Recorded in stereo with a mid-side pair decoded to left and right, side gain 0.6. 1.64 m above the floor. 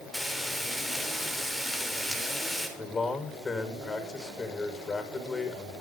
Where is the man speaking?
20° left, 7 m.